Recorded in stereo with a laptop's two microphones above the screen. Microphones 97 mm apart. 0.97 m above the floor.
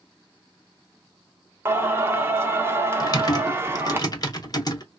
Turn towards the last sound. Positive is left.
turn(degrees=40)  # may be behind; listen again after turning